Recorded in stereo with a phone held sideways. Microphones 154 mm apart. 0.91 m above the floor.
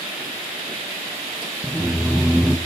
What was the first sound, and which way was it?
Laughter, 5° right (ahead or behind).